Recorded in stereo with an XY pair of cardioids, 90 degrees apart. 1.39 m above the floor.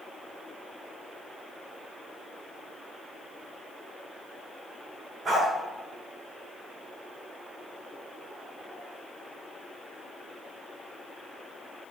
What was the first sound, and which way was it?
A dog barking, 45° right.